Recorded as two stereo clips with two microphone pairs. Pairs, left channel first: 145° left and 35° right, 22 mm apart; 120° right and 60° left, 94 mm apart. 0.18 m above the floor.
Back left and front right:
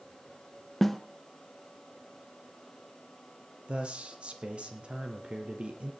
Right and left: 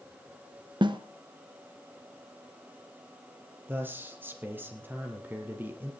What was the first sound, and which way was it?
A snare drum, 65° left.